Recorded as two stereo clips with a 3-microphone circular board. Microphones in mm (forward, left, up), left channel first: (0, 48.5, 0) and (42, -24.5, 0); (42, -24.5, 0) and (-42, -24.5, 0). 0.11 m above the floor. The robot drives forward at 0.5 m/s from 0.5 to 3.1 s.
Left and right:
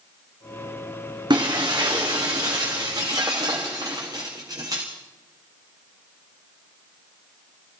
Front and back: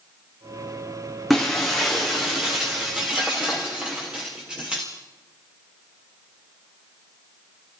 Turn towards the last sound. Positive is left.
turn(degrees=-105)